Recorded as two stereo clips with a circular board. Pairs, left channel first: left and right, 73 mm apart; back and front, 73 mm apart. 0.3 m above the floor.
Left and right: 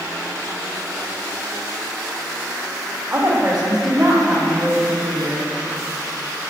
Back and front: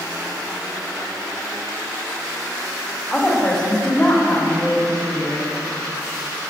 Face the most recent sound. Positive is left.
turn(degrees=180)